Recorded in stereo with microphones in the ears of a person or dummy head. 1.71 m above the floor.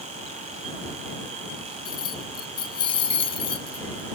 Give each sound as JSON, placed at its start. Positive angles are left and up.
{"t": 1.9, "sound": "keys jangling", "side_deg": 20}